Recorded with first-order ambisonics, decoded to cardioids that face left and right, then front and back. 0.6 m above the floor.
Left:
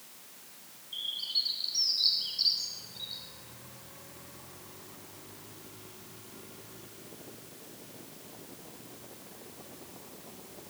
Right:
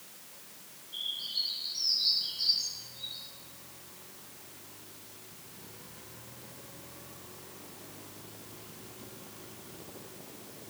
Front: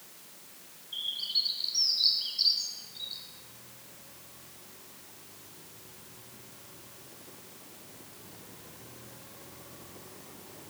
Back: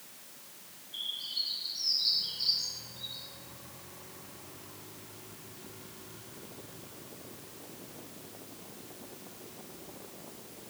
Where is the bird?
35° left, 2.5 m.